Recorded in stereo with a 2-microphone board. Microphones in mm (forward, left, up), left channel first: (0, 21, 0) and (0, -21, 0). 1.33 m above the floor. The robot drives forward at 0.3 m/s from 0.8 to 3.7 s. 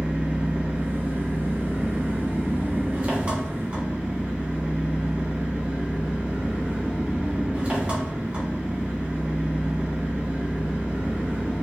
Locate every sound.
0.0 s an engine running: 35° right (ahead or behind), 0.9 m; by 11.6 s 30° right (ahead or behind), 1.1 m